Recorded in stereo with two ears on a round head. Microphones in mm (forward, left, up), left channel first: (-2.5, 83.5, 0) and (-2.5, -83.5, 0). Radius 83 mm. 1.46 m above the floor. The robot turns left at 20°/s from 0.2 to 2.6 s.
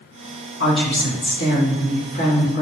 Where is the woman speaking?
70° left, 1.0 m; by 2.6 s 30° left, 1.0 m.